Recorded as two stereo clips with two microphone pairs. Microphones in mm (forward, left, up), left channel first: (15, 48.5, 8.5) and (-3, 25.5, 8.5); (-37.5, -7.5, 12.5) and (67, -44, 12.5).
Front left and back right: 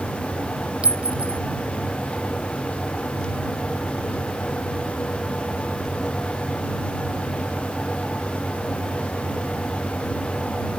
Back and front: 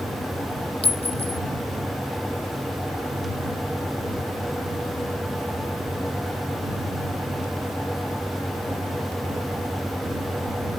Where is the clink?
175° right.